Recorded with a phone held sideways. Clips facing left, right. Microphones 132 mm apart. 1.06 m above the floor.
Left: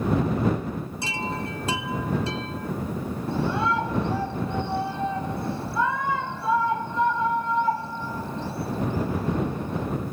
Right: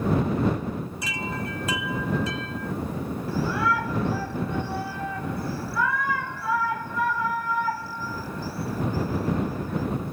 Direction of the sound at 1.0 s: 30° left (ahead or behind).